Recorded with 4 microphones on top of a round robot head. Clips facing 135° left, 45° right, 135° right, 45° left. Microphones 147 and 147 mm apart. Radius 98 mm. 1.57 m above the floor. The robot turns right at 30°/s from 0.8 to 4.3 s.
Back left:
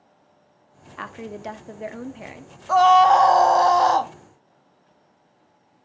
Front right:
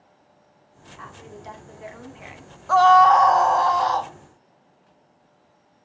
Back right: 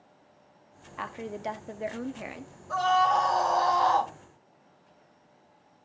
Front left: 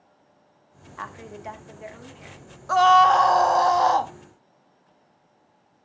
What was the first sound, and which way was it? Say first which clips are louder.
A woman speaking: back left 8 dB, back right 3 dB; 150° left.